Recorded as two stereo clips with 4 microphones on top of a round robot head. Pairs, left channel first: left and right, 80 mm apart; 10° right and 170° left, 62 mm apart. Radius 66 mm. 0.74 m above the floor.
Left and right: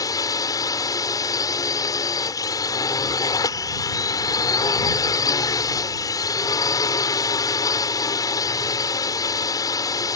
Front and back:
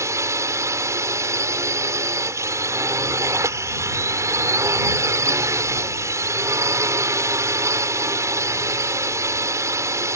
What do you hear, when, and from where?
0.0 s a drone: 130° left